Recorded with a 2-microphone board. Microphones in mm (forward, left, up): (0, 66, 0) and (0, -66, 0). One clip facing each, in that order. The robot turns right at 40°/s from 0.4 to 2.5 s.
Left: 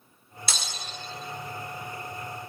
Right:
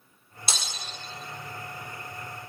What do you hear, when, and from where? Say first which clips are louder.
0.5 s breaking glass: right 1 dB; 25° right (ahead or behind), 1.8 m; by 0.7 s 30° right (ahead or behind), 1.8 m